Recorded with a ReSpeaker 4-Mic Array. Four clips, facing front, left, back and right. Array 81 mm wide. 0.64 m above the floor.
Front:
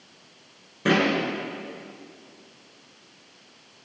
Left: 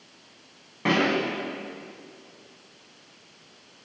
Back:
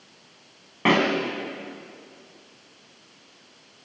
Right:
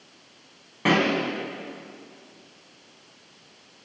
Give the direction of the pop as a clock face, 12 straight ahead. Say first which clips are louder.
Right 1 dB, back 1 dB; 6 o'clock.